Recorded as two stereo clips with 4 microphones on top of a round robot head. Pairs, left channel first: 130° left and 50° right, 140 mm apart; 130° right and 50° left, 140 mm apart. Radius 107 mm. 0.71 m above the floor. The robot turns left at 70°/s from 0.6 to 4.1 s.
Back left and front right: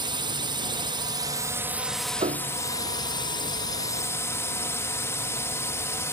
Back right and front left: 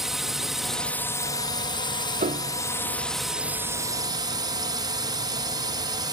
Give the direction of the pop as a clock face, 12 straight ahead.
I don't hear a pop.